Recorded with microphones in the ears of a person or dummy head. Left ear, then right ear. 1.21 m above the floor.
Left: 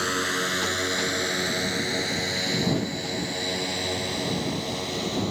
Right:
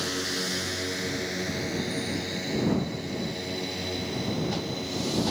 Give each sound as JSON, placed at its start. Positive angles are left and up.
{"t": 0.0, "sound": "a drone", "side_deg": 45}